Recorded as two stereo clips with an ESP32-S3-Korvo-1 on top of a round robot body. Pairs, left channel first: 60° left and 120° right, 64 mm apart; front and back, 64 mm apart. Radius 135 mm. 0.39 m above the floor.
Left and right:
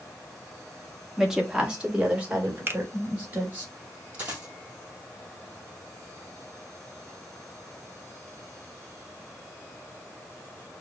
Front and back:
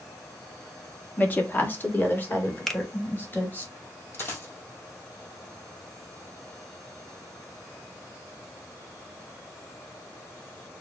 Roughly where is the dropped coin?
Ahead right.